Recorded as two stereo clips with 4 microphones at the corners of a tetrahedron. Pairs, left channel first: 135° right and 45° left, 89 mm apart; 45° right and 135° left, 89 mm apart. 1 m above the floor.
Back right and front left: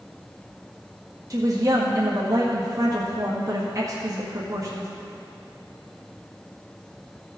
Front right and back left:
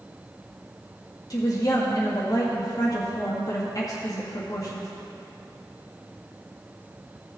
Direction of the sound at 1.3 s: Straight ahead.